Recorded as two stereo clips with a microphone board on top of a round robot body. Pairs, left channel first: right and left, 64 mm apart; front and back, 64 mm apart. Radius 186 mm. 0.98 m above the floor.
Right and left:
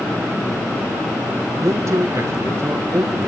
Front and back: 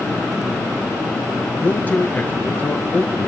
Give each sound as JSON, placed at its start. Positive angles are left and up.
{"t": 1.6, "sound": "a man speaking", "azimuth_deg": 60, "distance_m": 1.5}